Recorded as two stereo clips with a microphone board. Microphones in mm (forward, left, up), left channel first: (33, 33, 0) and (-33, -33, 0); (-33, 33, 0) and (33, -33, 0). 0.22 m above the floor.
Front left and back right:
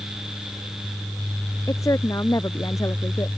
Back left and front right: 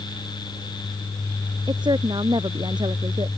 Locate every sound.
1.7 s a woman speaking: 10° right